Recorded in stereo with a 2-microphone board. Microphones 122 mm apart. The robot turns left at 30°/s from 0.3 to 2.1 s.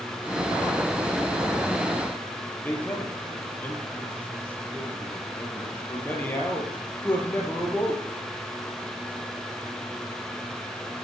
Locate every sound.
2.6 s a man speaking: 15° left (ahead or behind), 4.5 m